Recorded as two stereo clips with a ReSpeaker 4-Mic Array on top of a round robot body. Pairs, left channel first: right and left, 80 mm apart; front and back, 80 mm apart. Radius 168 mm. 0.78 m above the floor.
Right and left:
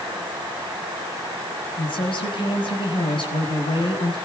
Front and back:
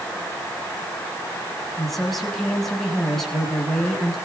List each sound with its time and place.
1.8 s a woman speaking: 85° right, 6.5 m